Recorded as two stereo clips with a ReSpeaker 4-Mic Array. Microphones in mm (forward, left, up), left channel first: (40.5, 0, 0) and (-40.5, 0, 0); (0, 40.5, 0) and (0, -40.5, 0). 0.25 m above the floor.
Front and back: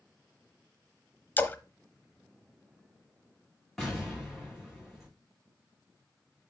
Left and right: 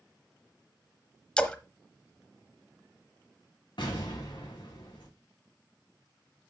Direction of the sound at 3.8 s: 90° left.